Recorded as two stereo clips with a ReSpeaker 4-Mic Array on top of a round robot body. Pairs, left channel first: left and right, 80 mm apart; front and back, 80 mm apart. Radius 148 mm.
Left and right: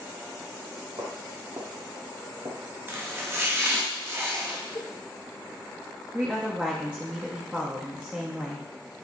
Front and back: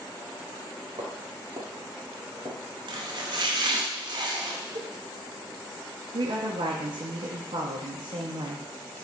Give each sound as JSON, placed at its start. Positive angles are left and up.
{"t": 1.0, "sound": "footsteps", "azimuth_deg": -135, "distance_m": 2.0}
{"t": 2.9, "sound": "chopping", "azimuth_deg": -150, "distance_m": 0.9}
{"t": 4.8, "sound": "a cowbell", "azimuth_deg": 155, "distance_m": 0.6}
{"t": 6.1, "sound": "a woman speaking", "azimuth_deg": -165, "distance_m": 0.9}